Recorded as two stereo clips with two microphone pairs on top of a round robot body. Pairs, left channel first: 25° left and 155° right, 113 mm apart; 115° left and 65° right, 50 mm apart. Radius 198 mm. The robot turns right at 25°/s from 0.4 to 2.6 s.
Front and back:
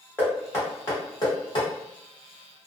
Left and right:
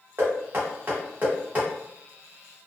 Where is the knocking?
45° right, 1.7 m; by 1.7 s 15° right, 1.7 m.